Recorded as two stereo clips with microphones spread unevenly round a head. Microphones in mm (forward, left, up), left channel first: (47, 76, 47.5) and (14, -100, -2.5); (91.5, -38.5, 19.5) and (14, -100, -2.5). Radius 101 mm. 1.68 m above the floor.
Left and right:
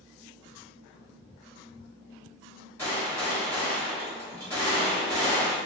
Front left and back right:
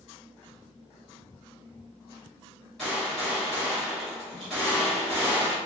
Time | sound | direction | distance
2.8 | a gunshot | 90° left | 1.3 m